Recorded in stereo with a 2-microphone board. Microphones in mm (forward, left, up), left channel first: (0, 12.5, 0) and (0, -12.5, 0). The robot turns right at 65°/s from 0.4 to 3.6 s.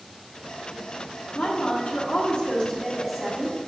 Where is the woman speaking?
65° left, 1.2 m; by 3.6 s 150° right, 1.2 m.